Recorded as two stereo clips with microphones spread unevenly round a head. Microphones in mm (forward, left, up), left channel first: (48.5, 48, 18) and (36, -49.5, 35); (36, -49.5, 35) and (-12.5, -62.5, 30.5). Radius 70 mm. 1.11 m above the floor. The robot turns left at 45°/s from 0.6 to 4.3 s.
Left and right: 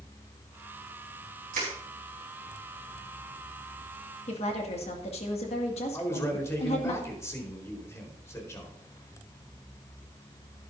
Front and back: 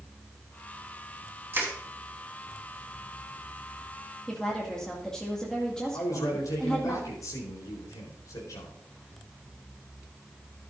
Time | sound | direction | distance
1.5 | crushing | 120° right | 4 m
4.3 | a woman speaking | 100° left | 2 m
5.9 | a man speaking | 25° left | 4 m